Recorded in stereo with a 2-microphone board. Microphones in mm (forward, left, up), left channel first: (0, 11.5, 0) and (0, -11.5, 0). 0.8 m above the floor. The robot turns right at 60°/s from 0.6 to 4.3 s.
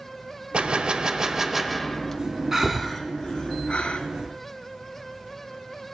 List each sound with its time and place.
0.5 s a gunshot: 65° right, 0.7 m; by 2.2 s 30° left, 0.7 m
2.5 s breathing: 15° right (ahead or behind), 1.2 m; by 4.0 s 55° left (ahead or behind), 1.2 m